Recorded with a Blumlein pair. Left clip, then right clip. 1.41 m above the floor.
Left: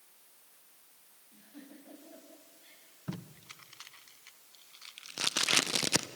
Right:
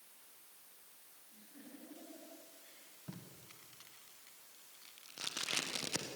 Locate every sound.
1.3 s a giggle: 65° left, 8.5 m
3.1 s tape being pulled: 30° left, 1.2 m